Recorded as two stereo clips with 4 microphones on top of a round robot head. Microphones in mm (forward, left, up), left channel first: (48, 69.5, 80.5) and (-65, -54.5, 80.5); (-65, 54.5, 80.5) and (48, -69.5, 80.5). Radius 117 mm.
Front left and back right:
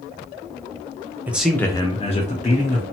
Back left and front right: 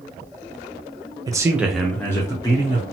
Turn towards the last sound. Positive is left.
turn(degrees=70)